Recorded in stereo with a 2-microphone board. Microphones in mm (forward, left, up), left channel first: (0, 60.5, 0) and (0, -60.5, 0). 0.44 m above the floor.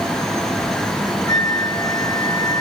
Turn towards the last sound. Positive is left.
turn(degrees=-40)  # may be behind; listen again after turning